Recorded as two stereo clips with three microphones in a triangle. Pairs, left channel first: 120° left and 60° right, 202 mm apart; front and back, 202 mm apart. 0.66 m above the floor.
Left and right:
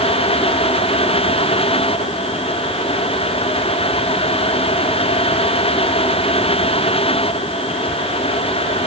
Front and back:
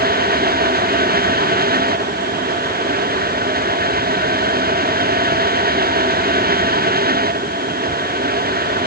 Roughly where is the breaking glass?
No breaking glass in this recording.